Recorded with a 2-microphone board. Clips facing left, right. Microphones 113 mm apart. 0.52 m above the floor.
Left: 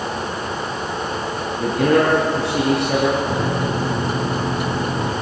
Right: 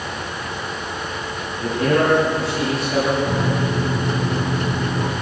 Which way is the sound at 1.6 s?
80° left.